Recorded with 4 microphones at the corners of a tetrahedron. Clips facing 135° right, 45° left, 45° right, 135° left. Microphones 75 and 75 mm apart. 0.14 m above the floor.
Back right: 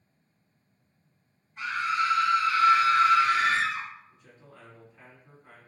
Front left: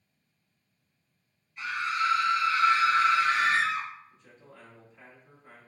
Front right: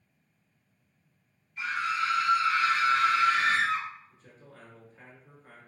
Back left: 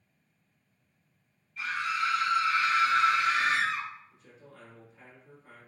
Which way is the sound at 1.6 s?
100° right.